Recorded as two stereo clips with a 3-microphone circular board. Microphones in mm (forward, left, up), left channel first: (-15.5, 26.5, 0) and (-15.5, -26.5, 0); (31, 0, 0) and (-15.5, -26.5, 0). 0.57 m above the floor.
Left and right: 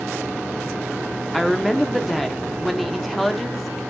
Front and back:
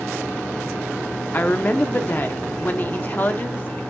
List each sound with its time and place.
1.3 s a woman speaking: 5° left, 0.8 m